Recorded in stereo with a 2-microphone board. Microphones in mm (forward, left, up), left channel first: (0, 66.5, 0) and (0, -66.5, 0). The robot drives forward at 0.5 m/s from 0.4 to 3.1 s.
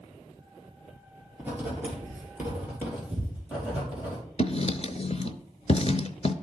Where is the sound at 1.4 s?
15° right (ahead or behind), 3 m.